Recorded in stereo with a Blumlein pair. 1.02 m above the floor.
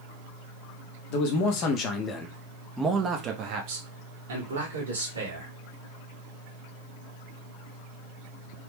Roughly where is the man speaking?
Ahead left.